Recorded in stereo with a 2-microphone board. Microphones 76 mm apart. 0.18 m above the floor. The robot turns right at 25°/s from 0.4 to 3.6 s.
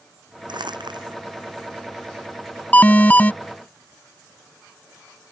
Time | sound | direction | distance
0.5 | crumpling | 85° right | ?
2.7 | an alarm | 20° left (ahead or behind) | ?